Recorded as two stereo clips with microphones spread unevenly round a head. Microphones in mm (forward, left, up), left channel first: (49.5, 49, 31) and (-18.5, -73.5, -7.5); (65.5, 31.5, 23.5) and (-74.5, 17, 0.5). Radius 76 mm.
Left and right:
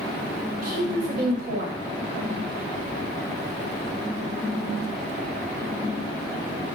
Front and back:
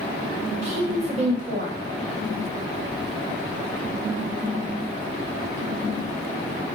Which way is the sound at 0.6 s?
130° right.